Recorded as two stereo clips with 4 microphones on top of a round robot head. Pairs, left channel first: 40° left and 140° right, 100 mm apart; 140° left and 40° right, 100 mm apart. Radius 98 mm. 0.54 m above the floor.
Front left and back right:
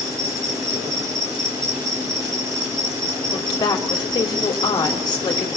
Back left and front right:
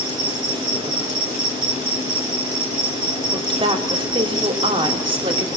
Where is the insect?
80° right, 5.5 m.